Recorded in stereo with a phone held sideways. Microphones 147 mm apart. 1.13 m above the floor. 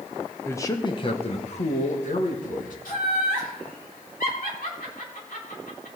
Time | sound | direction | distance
0.5 | a man speaking | 15° left (ahead or behind) | 0.9 m
2.9 | laughter | 75° left (ahead or behind) | 3.5 m